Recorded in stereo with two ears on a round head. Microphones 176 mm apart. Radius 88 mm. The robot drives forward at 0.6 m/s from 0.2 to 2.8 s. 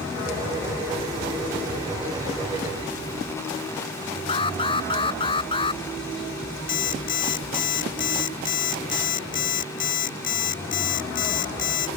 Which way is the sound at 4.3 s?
25° left (ahead or behind).